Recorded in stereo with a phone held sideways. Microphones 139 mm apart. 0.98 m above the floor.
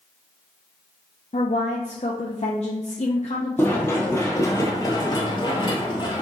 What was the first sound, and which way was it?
A woman speaking, 55° left (ahead or behind).